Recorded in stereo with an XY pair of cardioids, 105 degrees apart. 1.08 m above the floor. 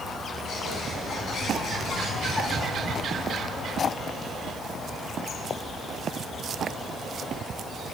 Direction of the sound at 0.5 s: 55° left.